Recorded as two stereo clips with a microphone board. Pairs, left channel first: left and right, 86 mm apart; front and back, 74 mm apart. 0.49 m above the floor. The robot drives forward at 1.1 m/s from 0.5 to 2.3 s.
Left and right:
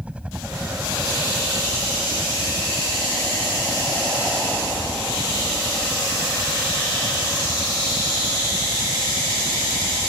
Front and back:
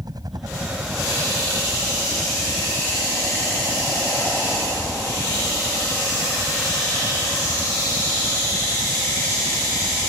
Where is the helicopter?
165° right.